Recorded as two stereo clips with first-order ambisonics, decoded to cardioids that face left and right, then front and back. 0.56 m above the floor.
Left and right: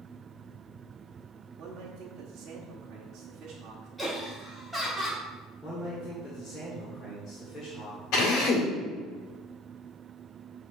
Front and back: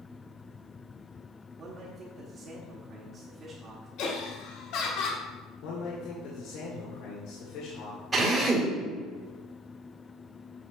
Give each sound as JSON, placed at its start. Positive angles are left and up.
{"t": 1.6, "sound": "a man speaking", "azimuth_deg": -130, "distance_m": 1.2}
{"t": 4.0, "sound": "laughter", "azimuth_deg": -5, "distance_m": 1.4}
{"t": 5.6, "sound": "a man speaking", "azimuth_deg": 10, "distance_m": 1.7}
{"t": 8.1, "sound": "a drill", "azimuth_deg": 110, "distance_m": 2.0}